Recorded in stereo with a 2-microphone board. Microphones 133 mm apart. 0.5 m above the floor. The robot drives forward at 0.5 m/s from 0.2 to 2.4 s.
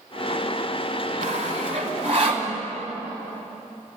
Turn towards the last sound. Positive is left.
turn(degrees=-45)  # may be behind; listen again after turning